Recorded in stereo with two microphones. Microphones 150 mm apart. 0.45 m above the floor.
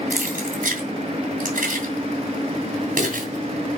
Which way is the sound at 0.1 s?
70° right (ahead or behind).